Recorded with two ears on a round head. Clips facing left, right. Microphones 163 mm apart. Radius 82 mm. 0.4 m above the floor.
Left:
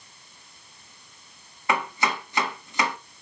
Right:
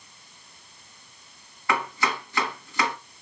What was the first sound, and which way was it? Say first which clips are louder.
Chopping: left 1 dB; 20° left (ahead or behind).